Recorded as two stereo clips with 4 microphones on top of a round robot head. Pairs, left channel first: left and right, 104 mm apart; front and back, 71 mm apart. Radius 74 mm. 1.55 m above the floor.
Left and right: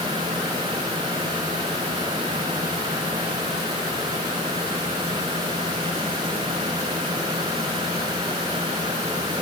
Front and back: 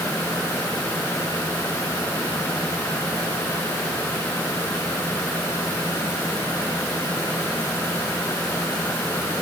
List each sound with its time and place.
Only background noise.